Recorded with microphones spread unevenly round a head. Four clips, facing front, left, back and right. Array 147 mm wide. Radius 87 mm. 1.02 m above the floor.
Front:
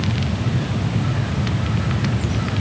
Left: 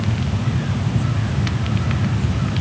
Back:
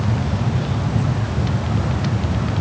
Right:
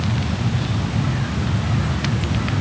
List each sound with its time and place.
Only background noise.